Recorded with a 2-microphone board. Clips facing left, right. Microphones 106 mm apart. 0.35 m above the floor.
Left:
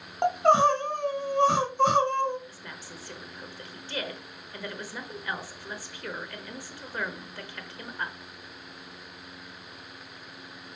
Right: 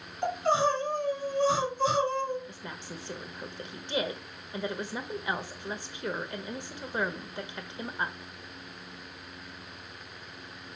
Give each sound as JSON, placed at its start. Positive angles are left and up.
{"t": 0.2, "sound": "crying", "side_deg": 65, "distance_m": 1.1}
{"t": 2.5, "sound": "a woman speaking", "side_deg": -20, "distance_m": 0.8}